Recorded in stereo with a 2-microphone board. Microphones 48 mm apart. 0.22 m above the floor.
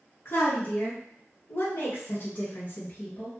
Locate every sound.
0.2 s a woman speaking: 50° left (ahead or behind), 1.6 m; by 3.3 s 30° left (ahead or behind), 1.9 m